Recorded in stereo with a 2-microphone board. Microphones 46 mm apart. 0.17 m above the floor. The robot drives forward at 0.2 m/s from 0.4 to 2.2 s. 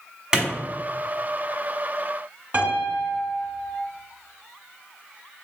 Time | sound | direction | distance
0.3 | a clap | 20° right (ahead or behind) | 1.0 m
2.5 | a piano | 50° right (ahead or behind) | 0.9 m